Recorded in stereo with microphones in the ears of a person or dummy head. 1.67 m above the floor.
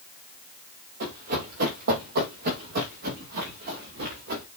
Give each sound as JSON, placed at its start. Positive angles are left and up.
{"t": 1.0, "sound": "running footsteps", "side_deg": -40, "distance_m": 2.5}